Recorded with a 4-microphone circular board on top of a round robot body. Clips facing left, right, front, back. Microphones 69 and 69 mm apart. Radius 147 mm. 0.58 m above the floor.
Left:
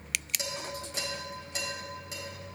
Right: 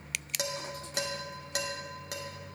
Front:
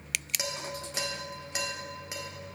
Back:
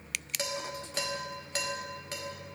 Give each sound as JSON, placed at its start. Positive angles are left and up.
{"t": 0.4, "sound": "dishes clattering", "azimuth_deg": -80, "distance_m": 1.1}